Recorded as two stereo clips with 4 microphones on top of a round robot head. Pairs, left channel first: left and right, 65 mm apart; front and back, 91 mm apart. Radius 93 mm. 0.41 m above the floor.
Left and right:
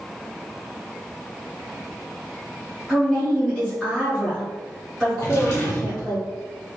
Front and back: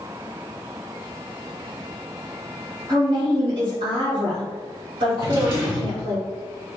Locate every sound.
2.9 s a woman speaking: 175° left, 2.0 m
5.2 s a drawer: 140° left, 1.9 m